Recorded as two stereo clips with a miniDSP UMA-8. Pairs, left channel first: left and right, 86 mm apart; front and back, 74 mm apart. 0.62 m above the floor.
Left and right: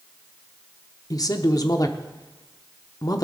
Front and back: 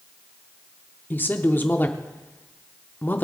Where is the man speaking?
55° left, 1.0 m.